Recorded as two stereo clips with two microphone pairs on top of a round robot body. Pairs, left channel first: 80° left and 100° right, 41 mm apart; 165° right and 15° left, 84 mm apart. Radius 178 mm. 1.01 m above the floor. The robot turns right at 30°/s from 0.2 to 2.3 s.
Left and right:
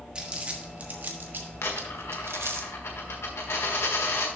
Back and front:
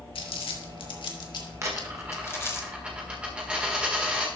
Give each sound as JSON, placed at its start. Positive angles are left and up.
{"t": 0.1, "sound": "crumpling", "azimuth_deg": -170, "distance_m": 1.4}
{"t": 1.6, "sound": "a dropped coin", "azimuth_deg": 75, "distance_m": 1.4}